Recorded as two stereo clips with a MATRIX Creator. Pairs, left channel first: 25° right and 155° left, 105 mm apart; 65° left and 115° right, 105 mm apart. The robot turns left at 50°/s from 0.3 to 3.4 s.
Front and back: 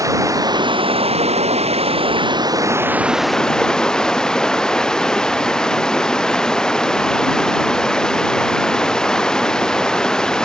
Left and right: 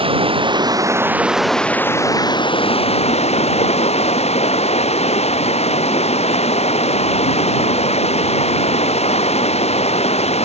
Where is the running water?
145° right; by 10.5 s 60° left.